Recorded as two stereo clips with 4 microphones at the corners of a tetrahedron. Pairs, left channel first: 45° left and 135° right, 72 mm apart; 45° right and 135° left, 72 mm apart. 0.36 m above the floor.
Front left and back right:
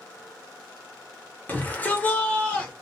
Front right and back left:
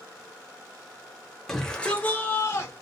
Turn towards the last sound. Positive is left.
turn(degrees=-20)